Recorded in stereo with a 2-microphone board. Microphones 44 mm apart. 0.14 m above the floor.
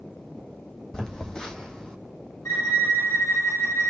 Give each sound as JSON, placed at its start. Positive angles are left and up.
{"t": 0.9, "sound": "a phone buzzing", "side_deg": 15, "distance_m": 1.6}
{"t": 2.5, "sound": "a violin", "side_deg": 85, "distance_m": 4.0}